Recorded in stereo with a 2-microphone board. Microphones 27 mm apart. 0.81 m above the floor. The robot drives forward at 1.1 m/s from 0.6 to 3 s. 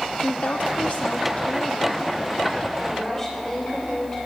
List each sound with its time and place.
0.2 s a woman speaking: 65° left (ahead or behind), 1.1 m; by 4.2 s 20° left (ahead or behind), 2.5 m